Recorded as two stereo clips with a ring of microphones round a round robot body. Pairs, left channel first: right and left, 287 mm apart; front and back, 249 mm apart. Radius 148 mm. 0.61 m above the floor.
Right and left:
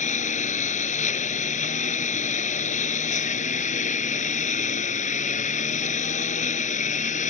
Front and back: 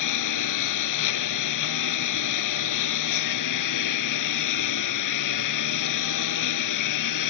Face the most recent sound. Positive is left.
turn(degrees=-25)